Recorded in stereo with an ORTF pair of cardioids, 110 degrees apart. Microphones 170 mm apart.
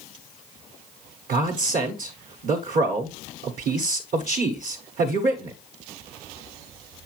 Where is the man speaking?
55° right, 1.3 m.